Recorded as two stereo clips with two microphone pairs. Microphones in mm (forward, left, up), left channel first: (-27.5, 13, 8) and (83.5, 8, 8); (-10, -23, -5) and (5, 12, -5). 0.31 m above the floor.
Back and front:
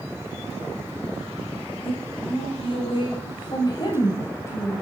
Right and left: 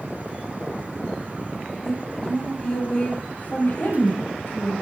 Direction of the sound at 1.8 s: 175° left.